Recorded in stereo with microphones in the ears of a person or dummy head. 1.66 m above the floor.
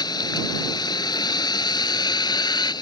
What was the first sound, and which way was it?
A vehicle, 25° left (ahead or behind).